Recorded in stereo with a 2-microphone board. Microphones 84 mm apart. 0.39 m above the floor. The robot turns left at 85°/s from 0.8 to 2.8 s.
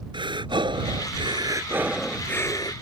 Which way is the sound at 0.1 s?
75° right.